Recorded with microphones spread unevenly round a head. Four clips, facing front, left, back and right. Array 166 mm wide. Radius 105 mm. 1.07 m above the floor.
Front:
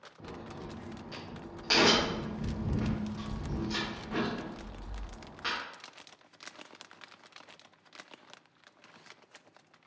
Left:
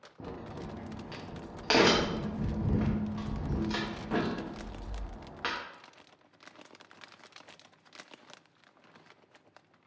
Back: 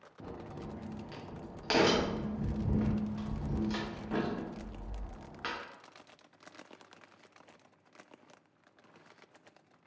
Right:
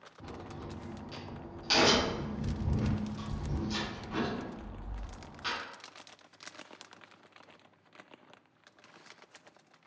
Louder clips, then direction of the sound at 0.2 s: Left 3 dB, even; 115° left.